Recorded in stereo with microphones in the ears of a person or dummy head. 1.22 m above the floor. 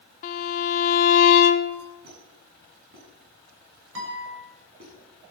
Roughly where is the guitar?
Right.